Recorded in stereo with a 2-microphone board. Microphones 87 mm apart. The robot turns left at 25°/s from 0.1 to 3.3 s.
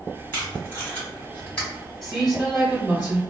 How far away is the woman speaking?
About 1.8 m.